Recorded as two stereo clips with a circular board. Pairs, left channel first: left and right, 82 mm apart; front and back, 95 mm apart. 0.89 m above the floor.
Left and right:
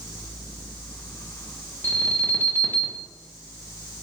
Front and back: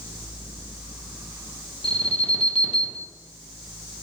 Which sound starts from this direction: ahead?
An alarm, at 1.8 s.